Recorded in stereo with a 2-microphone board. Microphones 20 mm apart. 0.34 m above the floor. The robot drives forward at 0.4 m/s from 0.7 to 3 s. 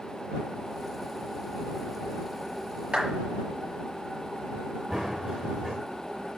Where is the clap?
65° right (ahead or behind), 5 m.